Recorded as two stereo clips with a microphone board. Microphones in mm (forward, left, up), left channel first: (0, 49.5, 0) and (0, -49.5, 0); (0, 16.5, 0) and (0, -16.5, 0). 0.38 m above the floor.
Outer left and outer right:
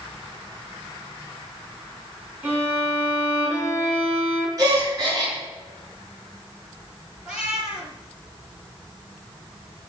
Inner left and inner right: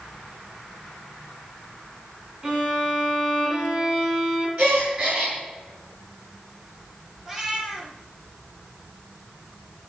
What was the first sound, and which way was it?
A violin, 20° right (ahead or behind).